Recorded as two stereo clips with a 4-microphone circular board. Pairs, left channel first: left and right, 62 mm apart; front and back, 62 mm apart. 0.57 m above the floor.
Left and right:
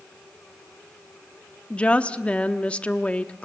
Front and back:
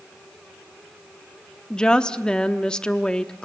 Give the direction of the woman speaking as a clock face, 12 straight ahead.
10 o'clock.